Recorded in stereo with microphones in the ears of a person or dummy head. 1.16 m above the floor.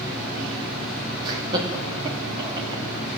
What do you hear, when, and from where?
1.2 s laughter: 25° right (ahead or behind), 1.0 m; by 2.8 s 30° right (ahead or behind), 3 m